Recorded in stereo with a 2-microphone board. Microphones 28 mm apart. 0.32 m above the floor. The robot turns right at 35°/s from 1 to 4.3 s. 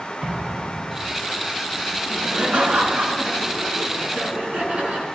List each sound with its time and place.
0.2 s an explosion: 30° right (ahead or behind), 3.5 m; by 1.2 s 40° right (ahead or behind), 3.5 m
2.1 s laughter: 135° right, 3 m; by 5.1 s 55° right, 3 m